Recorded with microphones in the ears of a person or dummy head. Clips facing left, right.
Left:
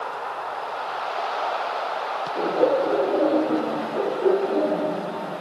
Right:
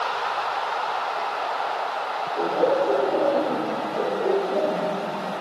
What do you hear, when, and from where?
2.4 s laughter: 50° left (ahead or behind), 2.5 m; by 5.3 s 80° left, 3 m